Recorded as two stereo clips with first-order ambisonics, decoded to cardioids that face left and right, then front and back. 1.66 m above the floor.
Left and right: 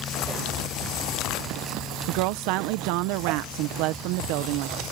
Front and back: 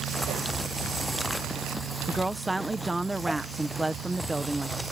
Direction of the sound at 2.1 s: 95° right.